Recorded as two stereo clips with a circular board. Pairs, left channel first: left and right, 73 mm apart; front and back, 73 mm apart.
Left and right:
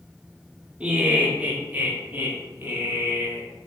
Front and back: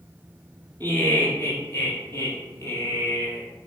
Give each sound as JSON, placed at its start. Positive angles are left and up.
{"t": 0.8, "sound": "laughter", "azimuth_deg": -35, "distance_m": 1.4}